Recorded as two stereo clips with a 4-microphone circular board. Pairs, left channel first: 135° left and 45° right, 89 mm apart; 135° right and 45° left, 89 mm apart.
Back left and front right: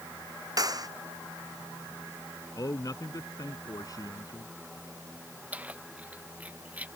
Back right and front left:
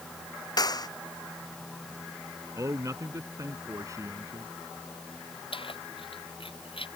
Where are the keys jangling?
120° right.